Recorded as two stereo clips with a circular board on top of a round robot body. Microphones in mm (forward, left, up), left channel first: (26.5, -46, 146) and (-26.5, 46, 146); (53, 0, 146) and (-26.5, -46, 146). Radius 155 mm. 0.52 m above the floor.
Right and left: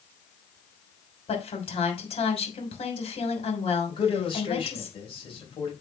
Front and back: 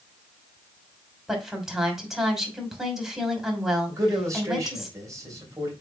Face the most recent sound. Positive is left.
turn(degrees=-95)